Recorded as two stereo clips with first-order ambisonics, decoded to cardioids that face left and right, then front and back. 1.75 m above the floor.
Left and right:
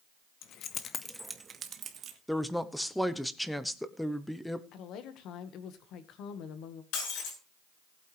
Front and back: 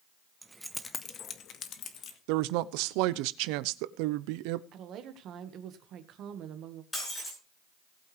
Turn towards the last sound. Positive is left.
turn(degrees=80)